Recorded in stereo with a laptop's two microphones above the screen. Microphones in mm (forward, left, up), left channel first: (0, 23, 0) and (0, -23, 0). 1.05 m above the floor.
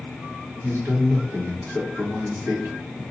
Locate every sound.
0.6 s a man speaking: 60° right (ahead or behind), 1.5 m